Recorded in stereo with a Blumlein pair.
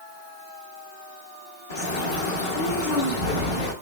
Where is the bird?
60° left, 1.1 m.